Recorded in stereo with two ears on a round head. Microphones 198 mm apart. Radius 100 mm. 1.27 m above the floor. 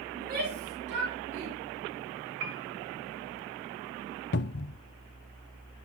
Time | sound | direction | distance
0.1 | a shout | 40° right (ahead or behind) | 3 m
2.4 | a piano | 55° right (ahead or behind) | 1.3 m
4.3 | a cupboard door | 50° left (ahead or behind) | 0.5 m